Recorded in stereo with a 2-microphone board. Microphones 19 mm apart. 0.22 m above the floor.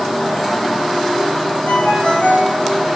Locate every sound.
1.7 s a ringtone: 70° left (ahead or behind), 7.5 m